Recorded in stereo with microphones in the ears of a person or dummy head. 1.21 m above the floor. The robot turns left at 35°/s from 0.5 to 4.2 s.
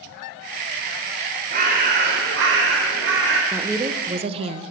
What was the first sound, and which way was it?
A bird, 55° right.